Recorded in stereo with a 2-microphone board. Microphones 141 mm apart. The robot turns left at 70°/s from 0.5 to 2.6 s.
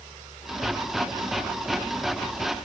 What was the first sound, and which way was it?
Only background noise.